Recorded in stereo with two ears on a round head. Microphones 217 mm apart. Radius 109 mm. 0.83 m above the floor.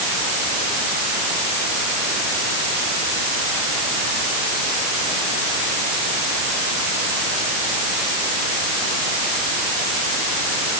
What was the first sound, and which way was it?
Only background noise.